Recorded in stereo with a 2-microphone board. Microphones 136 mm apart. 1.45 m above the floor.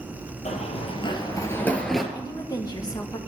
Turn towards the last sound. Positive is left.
turn(degrees=25)  # may be behind; listen again after turning